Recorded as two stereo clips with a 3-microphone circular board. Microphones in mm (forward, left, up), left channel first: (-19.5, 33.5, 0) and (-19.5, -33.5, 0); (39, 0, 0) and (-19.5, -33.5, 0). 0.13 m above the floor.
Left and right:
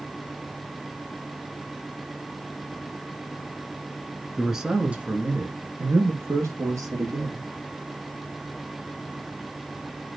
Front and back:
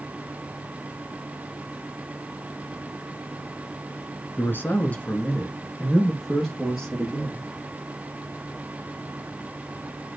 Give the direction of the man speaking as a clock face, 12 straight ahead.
12 o'clock.